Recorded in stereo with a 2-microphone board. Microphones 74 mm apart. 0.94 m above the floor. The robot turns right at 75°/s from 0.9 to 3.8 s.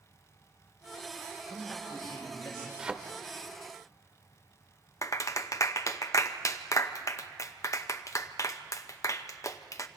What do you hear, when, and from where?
1.5 s a man speaking: 5° right, 5.5 m; by 2.7 s 85° left, 5.5 m
2.8 s a thud: 10° right (ahead or behind), 1.0 m; by 3.0 s 20° right (ahead or behind), 1.0 m
5.0 s a clap: 45° left (ahead or behind), 0.7 m